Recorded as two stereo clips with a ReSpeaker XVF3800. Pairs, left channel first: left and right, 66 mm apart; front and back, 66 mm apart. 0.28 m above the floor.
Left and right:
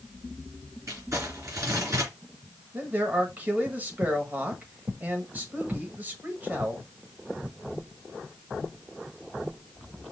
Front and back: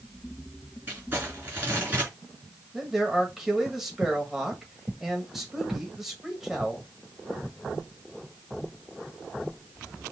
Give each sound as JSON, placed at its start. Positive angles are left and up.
{"t": 0.9, "sound": "crumpling", "azimuth_deg": -120, "distance_m": 2.5}
{"t": 2.7, "sound": "a man speaking", "azimuth_deg": -100, "distance_m": 1.4}